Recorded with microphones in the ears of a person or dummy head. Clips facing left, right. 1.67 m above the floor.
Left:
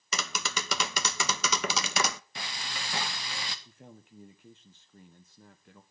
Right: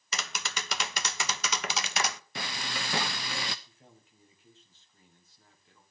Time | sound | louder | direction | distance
0.1 | tapping | left 3 dB | 90° left | 0.5 m
2.4 | frying | right 4 dB | 55° right (ahead or behind) | 0.7 m
3.6 | a man speaking | left 7 dB | 50° left (ahead or behind) | 1.3 m